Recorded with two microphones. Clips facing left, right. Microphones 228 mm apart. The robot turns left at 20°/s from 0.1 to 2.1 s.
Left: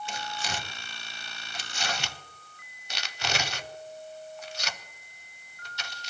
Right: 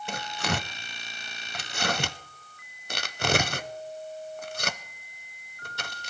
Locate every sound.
0.1 s tearing paper: 60° right (ahead or behind), 0.6 m; by 6.1 s 55° right (ahead or behind), 0.6 m